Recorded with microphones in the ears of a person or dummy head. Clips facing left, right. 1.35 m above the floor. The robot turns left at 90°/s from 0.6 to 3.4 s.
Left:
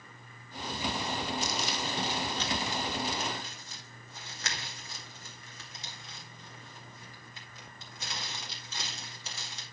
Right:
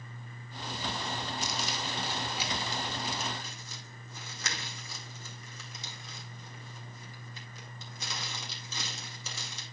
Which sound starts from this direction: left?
Crumpling, at 1.4 s.